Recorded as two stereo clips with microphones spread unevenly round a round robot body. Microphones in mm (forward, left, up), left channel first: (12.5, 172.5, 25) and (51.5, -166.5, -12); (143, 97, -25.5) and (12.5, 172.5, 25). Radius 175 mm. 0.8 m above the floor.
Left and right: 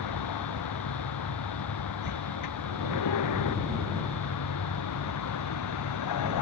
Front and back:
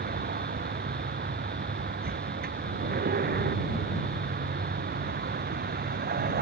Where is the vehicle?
135° left; by 6.4 s 140° left.